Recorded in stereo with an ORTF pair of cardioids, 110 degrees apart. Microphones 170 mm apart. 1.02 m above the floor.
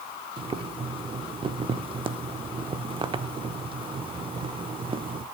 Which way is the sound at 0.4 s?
30° right.